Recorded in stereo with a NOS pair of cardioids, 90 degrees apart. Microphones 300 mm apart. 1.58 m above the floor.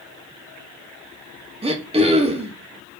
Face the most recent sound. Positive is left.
turn(degrees=-20)